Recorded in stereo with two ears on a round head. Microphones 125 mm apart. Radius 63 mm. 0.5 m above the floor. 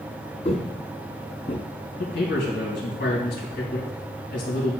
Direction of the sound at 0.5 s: 45° left (ahead or behind).